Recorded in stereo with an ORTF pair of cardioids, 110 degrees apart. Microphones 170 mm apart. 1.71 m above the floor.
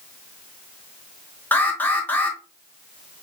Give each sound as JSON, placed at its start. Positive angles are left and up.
{"t": 1.5, "sound": "an alarm", "azimuth_deg": 10, "distance_m": 1.3}